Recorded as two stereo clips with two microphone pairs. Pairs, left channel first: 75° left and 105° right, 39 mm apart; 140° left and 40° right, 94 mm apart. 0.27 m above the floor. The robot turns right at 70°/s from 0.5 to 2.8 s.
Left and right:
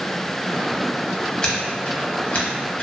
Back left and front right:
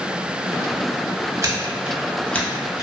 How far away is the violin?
No violin in this recording.